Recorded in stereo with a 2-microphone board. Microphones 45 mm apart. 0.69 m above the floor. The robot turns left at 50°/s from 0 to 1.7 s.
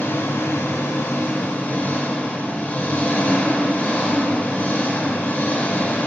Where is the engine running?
130° left, 1.4 m; by 6.1 s 45° left, 1.4 m.